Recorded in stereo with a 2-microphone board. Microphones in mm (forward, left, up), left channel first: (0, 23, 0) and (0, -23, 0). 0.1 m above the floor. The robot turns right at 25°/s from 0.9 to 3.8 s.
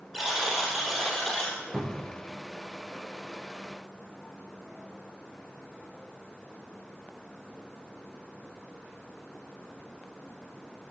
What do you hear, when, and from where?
0.1 s a buzzer: 5° right (ahead or behind), 3 m; by 1.6 s 10° left (ahead or behind), 3 m
1.7 s a cupboard door: 5° right (ahead or behind), 2.5 m; by 2.2 s 15° right (ahead or behind), 2.5 m